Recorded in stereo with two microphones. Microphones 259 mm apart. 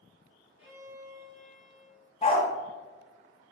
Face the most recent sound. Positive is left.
turn(degrees=25)  # may be behind; listen again after turning